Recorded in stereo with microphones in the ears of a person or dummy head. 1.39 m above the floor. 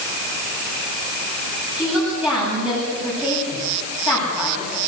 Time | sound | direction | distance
1.8 | a woman speaking | 5° right (ahead or behind) | 9.5 m